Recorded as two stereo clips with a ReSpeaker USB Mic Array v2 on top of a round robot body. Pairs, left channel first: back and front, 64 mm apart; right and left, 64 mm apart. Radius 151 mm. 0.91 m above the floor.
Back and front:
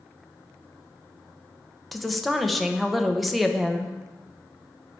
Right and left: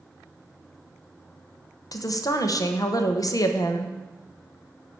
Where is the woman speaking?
90° right, 1.3 m.